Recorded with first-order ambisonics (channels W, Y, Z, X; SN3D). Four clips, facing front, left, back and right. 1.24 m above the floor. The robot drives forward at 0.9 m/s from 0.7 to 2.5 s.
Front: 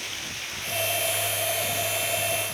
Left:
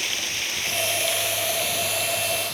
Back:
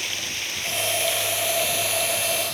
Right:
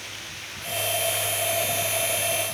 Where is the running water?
120° left, 2.5 m; by 2.5 s 145° left, 3.5 m.